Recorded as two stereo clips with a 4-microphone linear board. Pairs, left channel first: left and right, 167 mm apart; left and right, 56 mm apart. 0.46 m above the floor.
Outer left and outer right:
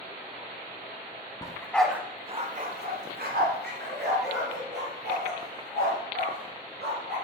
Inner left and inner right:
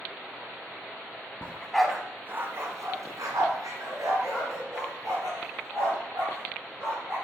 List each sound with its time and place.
1.4 s a dog barking: 25° left (ahead or behind), 1.1 m; by 7.2 s 80° right, 5.5 m